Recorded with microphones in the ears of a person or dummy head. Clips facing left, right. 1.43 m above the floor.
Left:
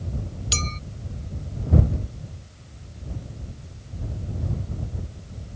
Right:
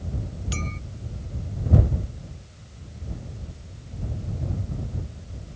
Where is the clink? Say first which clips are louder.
Even; 60° left (ahead or behind).